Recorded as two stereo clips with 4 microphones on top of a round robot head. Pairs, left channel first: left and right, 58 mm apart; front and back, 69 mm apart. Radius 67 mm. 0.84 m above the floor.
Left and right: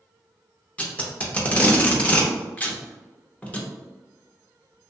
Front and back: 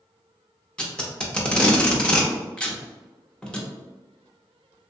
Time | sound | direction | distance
0.8 | tape being pulled | 60° left | 0.7 m